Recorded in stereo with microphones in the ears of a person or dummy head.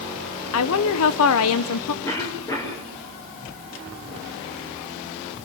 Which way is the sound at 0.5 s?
80° left.